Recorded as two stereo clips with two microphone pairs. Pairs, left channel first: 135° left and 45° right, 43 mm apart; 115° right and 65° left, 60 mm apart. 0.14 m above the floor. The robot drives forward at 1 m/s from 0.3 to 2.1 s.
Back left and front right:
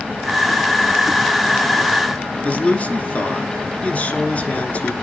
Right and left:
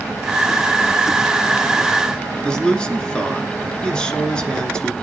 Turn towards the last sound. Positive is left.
turn(degrees=180)